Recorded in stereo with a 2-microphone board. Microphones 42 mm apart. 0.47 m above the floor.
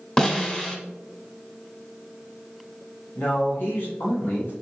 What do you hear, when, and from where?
0.2 s a snare drum: 20° left (ahead or behind), 1.0 m
3.1 s a man speaking: 50° left (ahead or behind), 2 m